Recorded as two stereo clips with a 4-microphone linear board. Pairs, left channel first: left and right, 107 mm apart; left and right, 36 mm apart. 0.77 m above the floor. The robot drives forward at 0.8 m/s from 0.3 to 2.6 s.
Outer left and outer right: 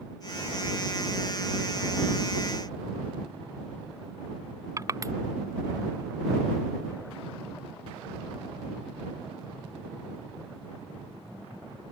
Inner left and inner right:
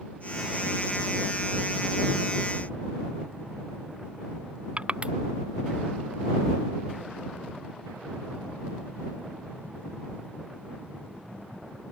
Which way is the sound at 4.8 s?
30° right (ahead or behind).